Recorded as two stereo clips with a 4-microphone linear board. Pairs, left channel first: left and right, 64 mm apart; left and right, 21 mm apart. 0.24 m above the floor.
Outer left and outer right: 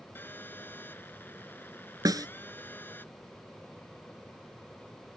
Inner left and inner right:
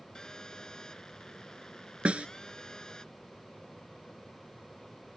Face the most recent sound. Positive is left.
turn(degrees=-75)  # may be behind; listen again after turning